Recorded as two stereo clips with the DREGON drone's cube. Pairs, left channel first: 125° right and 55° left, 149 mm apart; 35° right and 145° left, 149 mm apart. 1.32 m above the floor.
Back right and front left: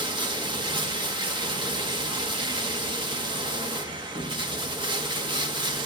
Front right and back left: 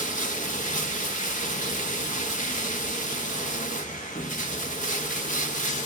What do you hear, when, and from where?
0.0 s running water: 5° right, 1.5 m